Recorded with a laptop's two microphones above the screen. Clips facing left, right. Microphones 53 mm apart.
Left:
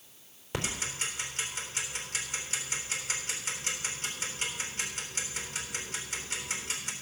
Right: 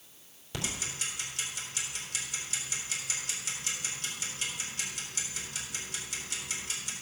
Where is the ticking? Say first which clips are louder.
Left 3 dB; 35° left (ahead or behind), 3.5 m.